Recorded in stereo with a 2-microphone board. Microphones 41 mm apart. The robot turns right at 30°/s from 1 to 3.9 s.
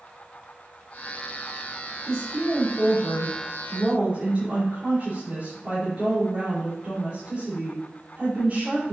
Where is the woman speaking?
85° right, 3.5 m; by 8.9 s 30° right, 3.5 m.